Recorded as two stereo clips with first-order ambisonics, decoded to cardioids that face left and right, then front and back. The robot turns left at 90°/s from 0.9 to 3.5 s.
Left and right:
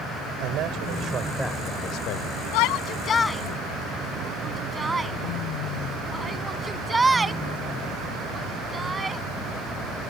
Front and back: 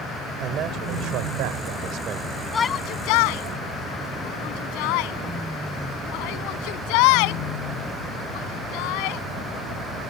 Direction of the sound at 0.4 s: 130° right.